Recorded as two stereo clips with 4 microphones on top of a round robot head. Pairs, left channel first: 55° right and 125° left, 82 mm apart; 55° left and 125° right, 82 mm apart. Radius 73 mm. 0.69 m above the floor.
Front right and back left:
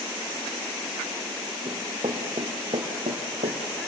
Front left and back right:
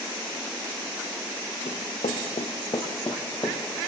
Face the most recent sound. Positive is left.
turn(degrees=130)